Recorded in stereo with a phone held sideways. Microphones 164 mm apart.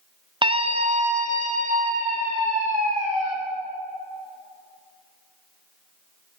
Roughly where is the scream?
Right.